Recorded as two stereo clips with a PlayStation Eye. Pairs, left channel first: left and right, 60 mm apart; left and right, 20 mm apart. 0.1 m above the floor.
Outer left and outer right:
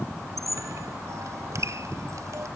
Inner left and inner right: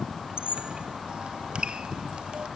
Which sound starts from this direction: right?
A squeak, at 0.4 s.